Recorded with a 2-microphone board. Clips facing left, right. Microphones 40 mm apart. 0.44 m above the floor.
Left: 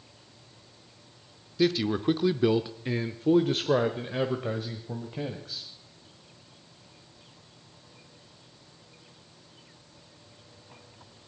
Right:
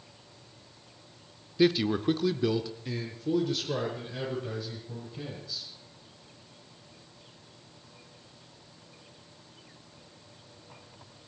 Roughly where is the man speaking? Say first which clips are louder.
Right 1 dB; centre.